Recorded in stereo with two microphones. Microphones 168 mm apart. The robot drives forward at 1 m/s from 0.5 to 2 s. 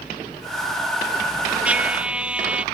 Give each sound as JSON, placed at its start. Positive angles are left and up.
{"t": 1.6, "sound": "a trumpet", "side_deg": -10}